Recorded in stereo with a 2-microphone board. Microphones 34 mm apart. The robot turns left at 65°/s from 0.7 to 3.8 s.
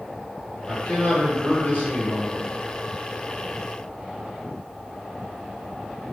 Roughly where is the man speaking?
Behind.